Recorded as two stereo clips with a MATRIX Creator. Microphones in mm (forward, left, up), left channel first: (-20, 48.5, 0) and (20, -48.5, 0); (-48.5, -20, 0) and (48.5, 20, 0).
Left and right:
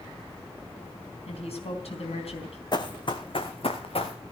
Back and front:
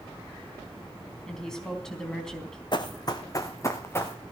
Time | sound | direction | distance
1.3 | a woman speaking | 120° left | 4 m
2.7 | running footsteps | 160° left | 1.8 m